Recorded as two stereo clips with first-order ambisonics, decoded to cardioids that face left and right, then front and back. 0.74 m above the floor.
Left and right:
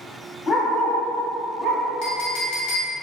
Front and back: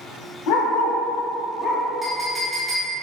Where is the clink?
85° left, 1.0 m.